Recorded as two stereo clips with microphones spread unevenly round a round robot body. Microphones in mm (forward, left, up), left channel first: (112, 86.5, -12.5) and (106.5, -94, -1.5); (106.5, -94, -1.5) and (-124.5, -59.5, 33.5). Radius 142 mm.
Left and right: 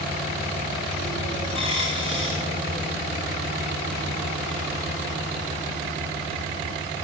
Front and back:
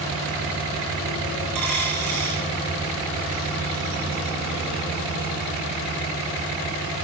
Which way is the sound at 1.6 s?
140° left.